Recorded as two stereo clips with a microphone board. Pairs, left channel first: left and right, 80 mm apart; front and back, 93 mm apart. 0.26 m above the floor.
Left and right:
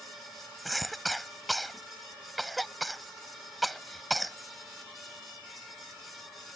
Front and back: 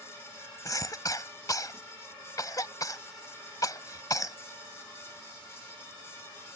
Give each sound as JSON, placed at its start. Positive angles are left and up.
{"t": 0.7, "sound": "a cough", "azimuth_deg": 0}